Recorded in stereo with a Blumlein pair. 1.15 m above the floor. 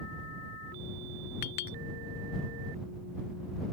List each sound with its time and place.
1.4 s a clink: 50° left